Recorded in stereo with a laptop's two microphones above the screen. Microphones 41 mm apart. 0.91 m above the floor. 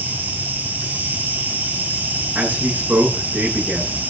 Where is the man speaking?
60° right (ahead or behind), 9.5 m.